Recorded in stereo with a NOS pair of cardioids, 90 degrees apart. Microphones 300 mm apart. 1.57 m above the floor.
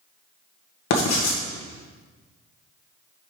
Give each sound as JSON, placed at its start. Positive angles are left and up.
{"t": 0.9, "sound": "writing", "azimuth_deg": 60, "distance_m": 1.6}